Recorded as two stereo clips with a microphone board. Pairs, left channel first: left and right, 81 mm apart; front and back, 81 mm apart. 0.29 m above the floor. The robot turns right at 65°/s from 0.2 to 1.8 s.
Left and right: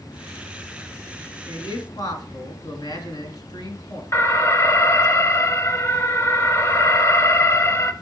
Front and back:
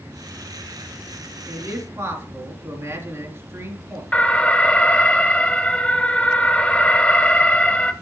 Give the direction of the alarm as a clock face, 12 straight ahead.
10 o'clock.